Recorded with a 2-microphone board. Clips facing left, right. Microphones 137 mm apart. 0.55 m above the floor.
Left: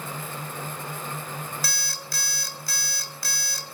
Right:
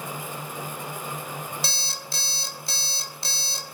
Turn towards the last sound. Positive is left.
turn(degrees=-25)  # may be behind; listen again after turning